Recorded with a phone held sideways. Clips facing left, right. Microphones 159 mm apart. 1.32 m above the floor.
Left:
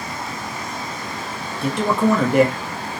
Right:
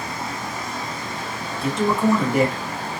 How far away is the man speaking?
About 0.8 m.